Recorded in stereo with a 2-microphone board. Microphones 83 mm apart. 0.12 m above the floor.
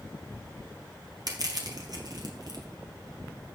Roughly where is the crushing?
Right.